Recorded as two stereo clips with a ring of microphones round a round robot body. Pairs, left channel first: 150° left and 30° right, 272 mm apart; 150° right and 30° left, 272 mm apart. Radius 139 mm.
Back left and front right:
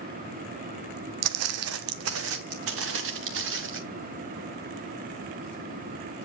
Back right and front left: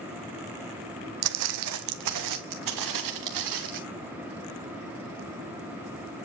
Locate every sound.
1.2 s footsteps: straight ahead, 0.9 m; by 3.8 s 15° left, 2.5 m